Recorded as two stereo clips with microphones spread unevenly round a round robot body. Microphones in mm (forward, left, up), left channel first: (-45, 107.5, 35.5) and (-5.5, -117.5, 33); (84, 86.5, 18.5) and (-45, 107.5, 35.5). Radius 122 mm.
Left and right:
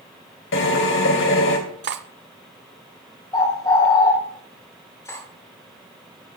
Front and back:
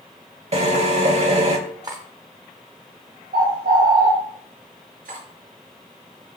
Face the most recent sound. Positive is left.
turn(degrees=175)